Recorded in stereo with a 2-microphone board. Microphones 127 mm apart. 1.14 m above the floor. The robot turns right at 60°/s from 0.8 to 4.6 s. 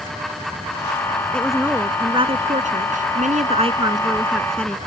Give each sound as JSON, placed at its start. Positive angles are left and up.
{"t": 1.3, "sound": "a woman speaking", "azimuth_deg": 170}